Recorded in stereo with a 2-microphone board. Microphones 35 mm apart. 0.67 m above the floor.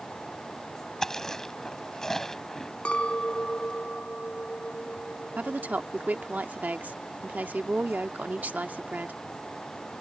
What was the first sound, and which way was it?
Chewing, 15° left (ahead or behind).